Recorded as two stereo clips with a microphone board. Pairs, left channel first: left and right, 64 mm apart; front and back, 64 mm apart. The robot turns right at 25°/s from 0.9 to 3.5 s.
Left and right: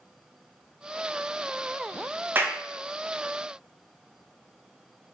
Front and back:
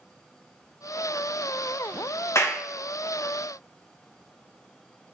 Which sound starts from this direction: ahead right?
A clap, at 2.4 s.